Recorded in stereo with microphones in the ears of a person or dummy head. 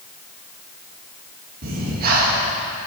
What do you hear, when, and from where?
1.6 s breathing: 50° right (ahead or behind), 1.8 m